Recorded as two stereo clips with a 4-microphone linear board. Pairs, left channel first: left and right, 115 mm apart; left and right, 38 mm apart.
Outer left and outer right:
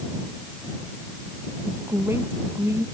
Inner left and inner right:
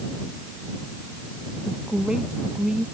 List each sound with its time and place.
1.6 s a woman speaking: 20° right (ahead or behind)